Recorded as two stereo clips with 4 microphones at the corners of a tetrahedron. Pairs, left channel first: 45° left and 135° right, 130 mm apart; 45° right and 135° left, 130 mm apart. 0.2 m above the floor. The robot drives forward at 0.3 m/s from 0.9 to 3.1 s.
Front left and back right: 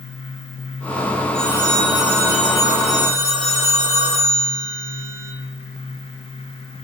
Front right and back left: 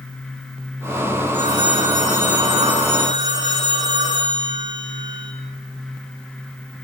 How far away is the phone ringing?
About 6 m.